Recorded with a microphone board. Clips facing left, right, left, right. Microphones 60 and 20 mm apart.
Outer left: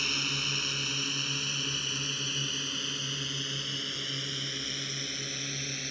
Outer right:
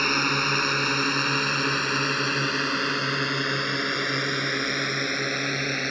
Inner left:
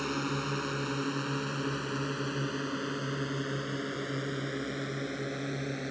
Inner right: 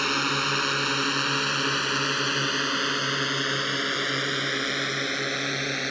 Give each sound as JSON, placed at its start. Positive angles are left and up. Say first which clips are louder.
{"t": 0.0, "sound": "a drone", "louder": "outer right 11 dB, inner right 9 dB", "side_deg": -55}